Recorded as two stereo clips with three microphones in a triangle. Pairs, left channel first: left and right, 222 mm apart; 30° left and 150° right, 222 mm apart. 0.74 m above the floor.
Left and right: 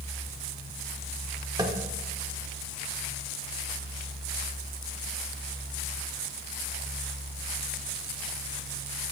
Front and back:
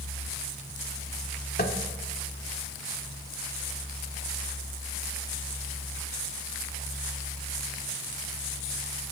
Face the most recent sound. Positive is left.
turn(degrees=-20)